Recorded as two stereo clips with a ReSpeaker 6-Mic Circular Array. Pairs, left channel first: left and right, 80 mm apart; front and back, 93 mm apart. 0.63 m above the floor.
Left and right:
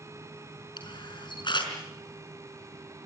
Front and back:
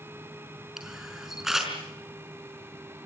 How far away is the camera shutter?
About 5 m.